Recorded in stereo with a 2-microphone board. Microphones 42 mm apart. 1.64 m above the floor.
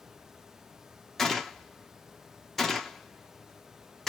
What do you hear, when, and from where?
1.2 s a gunshot: 5° left (ahead or behind), 0.7 m